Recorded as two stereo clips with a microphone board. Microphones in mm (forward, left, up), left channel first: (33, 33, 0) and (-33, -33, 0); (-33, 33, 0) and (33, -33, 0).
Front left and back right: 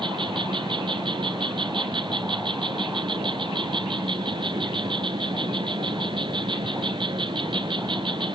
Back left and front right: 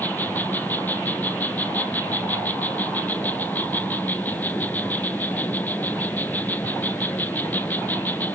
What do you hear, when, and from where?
0.0 s an insect: 155° right, 1.1 m